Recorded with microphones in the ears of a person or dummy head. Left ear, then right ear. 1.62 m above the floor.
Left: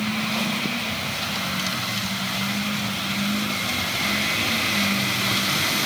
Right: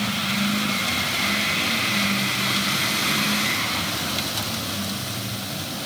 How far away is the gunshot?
I don't hear a gunshot.